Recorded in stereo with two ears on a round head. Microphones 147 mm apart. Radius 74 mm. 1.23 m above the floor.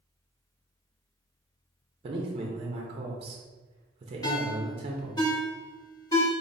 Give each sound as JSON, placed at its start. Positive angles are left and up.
{"t": 2.0, "sound": "a man speaking", "side_deg": -35, "distance_m": 0.5}
{"t": 4.2, "sound": "a ringtone", "side_deg": 25, "distance_m": 0.9}